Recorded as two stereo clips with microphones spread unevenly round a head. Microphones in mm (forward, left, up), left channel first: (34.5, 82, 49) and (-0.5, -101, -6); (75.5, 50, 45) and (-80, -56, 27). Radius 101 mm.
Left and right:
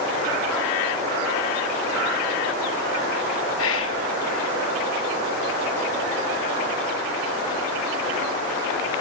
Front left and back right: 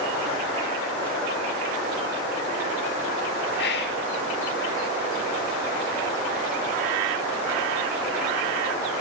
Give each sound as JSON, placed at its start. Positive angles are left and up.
{"t": 3.6, "sound": "whispering", "azimuth_deg": 70, "distance_m": 2.0}